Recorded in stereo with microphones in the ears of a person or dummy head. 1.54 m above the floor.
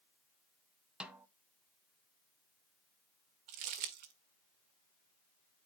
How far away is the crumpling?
About 1.5 m.